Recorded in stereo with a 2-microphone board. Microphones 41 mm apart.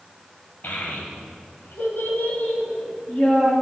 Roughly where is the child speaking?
Left.